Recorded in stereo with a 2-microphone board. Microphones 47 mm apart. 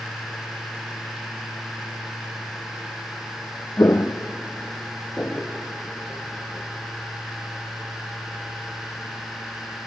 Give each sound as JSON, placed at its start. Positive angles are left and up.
{"t": 3.8, "sound": "footsteps", "side_deg": 70, "distance_m": 0.8}